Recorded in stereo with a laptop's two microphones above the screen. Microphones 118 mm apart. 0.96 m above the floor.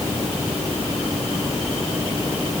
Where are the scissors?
I don't hear scissors.